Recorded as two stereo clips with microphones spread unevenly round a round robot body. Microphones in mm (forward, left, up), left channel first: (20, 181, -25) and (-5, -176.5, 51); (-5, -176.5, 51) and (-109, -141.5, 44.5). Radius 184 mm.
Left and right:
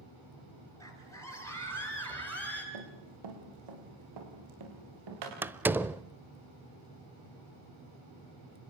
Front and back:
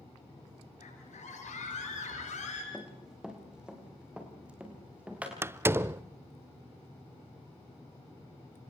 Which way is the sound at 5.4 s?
160° left.